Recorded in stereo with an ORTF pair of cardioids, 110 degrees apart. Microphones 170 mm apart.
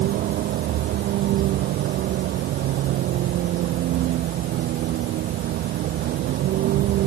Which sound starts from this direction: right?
A vehicle, at 0.0 s.